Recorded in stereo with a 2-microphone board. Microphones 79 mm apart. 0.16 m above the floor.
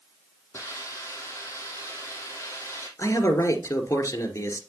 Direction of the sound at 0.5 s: 35° left (ahead or behind).